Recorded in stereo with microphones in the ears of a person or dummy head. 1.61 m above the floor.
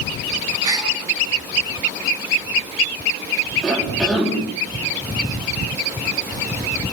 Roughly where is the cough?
Centre.